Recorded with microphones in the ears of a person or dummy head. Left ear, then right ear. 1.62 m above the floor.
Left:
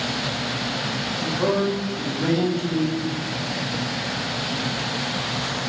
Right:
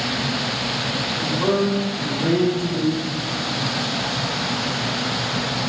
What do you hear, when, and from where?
1.2 s a man speaking: 40° left (ahead or behind), 0.8 m; by 3.1 s 80° left, 1.4 m